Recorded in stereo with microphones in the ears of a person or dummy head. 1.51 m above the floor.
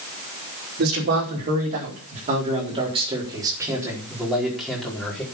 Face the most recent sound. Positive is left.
turn(degrees=5)  # may be behind; listen again after turning